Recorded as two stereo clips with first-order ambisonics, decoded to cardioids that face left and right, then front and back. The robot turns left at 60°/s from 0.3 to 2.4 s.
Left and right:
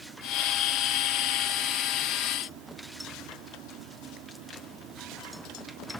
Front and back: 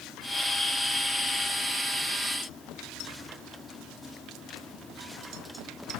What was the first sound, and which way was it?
Only background noise.